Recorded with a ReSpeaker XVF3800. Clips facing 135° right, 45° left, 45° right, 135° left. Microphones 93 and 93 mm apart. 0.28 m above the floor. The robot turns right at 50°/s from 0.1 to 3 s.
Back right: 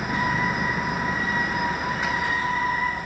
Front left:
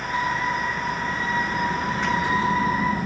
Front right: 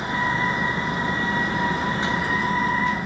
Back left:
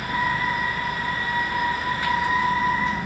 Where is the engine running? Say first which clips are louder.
Even, front right 1 dB; 110° right; by 3.1 s 35° left.